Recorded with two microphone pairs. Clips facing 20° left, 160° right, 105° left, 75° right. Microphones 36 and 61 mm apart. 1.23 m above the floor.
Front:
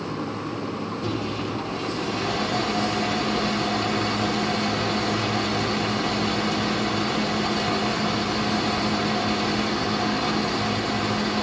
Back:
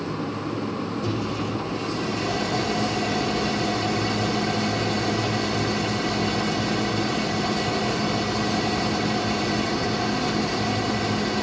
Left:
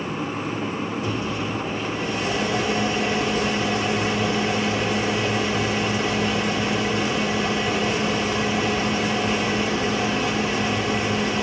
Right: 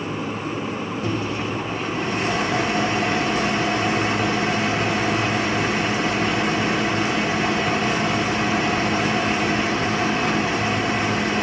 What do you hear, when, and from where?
1.0 s a microwave: 35° right, 1.7 m